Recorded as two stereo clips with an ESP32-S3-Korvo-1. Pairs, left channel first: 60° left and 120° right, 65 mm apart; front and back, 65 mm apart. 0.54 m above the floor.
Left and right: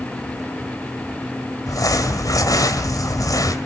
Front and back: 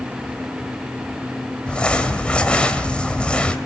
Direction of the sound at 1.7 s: 75° left.